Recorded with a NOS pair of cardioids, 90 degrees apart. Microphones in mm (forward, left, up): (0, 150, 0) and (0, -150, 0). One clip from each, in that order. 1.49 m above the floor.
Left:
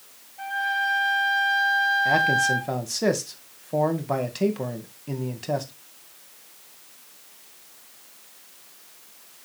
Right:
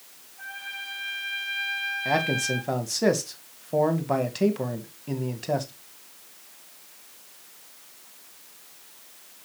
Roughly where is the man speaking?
Ahead.